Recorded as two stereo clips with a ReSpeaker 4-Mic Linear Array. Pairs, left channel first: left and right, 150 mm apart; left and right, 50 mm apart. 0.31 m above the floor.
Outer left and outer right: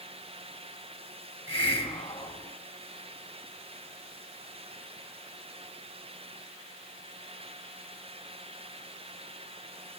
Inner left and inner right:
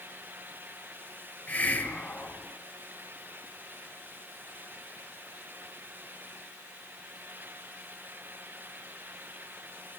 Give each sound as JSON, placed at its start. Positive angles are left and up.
{"t": 1.5, "sound": "a hiss", "side_deg": 35, "distance_m": 3.0}